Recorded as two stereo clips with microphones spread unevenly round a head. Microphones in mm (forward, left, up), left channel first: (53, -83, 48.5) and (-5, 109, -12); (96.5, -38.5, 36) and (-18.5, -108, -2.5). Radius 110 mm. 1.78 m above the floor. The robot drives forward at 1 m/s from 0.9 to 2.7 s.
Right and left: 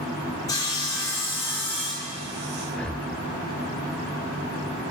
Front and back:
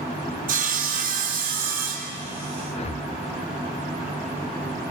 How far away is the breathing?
About 0.6 m.